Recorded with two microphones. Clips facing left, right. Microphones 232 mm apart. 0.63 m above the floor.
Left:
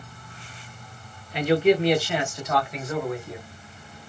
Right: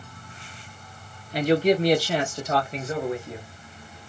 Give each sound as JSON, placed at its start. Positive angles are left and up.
{"t": 1.3, "sound": "a man speaking", "side_deg": -40, "distance_m": 1.0}